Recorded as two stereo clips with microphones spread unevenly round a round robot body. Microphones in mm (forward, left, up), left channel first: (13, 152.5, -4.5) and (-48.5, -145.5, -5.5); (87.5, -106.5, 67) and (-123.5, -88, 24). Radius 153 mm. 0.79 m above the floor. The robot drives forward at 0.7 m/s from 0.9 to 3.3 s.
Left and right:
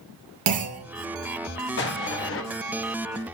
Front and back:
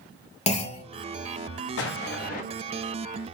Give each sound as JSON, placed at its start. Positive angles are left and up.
{"t": 0.5, "sound": "a clunk", "azimuth_deg": -60, "distance_m": 1.7}
{"t": 1.8, "sound": "an explosion", "azimuth_deg": 30, "distance_m": 1.4}